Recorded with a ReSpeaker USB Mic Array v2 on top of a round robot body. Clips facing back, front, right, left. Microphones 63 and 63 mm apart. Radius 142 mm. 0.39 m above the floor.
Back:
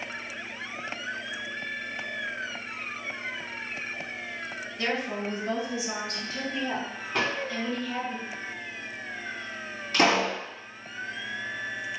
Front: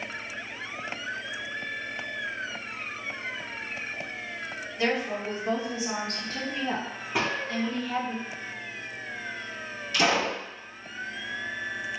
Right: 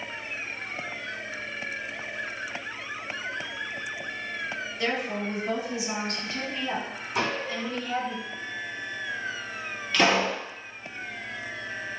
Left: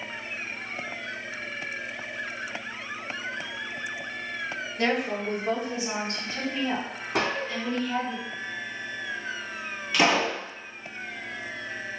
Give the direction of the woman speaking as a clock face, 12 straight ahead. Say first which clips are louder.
Front 2 dB, left 3 dB; 10 o'clock.